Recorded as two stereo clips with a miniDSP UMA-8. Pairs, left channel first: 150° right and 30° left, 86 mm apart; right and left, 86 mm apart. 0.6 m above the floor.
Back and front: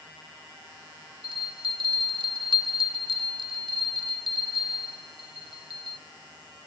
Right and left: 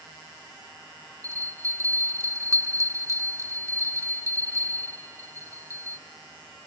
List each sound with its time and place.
1.2 s a bell: 35° left, 0.7 m